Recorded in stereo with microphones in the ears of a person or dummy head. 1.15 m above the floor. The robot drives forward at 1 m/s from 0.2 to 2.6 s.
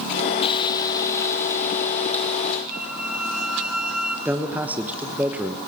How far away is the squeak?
About 2.5 m.